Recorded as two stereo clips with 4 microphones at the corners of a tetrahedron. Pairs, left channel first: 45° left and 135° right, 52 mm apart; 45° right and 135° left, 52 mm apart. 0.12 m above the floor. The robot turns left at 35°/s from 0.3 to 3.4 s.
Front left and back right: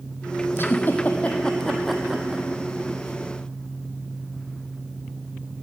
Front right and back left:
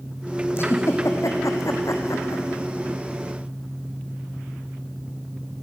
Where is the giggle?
Straight ahead, 1.0 m; by 2.5 s 65° right, 1.0 m.